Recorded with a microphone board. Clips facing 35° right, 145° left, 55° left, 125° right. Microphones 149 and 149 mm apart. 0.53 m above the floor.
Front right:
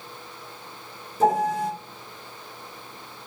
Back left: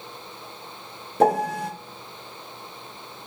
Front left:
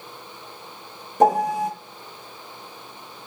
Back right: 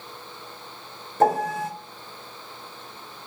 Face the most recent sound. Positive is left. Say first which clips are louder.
# back left 1 dB, front left 3 dB
turn(degrees=130)